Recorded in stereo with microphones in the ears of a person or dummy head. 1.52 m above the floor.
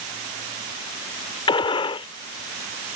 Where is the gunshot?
30° left (ahead or behind).